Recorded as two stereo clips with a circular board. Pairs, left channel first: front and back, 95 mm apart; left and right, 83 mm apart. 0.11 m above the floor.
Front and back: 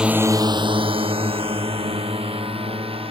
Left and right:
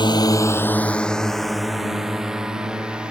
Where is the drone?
100° left; by 3.1 s 170° right.